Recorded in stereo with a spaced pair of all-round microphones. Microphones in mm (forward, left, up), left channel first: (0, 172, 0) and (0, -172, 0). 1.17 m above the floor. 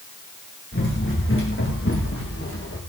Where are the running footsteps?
35° left (ahead or behind), 7.5 m; by 2.8 s 40° left (ahead or behind), 6 m.